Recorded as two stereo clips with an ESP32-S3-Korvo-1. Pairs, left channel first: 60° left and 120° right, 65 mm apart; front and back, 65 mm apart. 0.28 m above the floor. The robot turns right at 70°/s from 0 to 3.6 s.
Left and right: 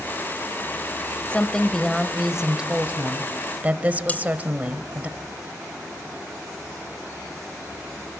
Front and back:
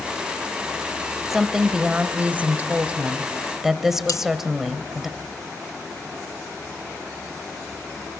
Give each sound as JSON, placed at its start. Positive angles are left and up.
{"t": 1.3, "sound": "a woman speaking", "azimuth_deg": 95, "distance_m": 1.0}
{"t": 4.1, "sound": "cutlery clinking", "azimuth_deg": 0, "distance_m": 1.1}